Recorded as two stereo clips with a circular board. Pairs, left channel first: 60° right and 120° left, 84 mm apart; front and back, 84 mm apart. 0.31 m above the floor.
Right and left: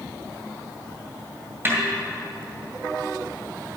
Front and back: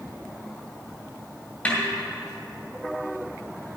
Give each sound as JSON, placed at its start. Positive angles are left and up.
{"t": 1.6, "sound": "a snare drum", "azimuth_deg": 65, "distance_m": 2.0}